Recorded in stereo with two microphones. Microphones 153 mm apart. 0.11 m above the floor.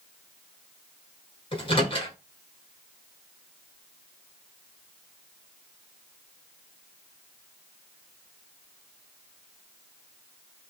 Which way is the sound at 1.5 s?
35° left (ahead or behind).